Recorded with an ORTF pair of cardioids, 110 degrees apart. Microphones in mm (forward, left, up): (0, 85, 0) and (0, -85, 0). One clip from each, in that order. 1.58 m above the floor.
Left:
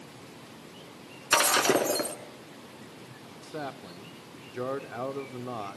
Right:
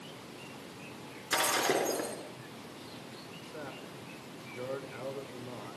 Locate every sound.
1.3 s breaking glass: 50° left, 2.5 m
3.4 s a man speaking: 65° left, 1.1 m